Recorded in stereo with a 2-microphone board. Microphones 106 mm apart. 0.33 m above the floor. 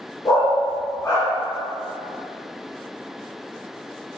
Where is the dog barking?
35° left (ahead or behind), 1.4 m.